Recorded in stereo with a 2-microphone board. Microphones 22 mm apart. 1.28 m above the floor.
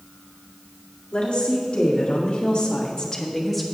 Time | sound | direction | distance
1.1 | a woman speaking | 80° left | 3 m